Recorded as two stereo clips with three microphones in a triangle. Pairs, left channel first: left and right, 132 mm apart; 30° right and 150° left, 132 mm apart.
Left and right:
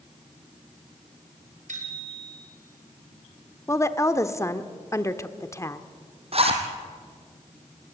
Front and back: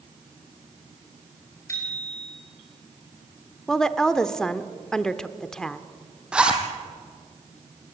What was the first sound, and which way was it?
A bicycle bell, 95° right.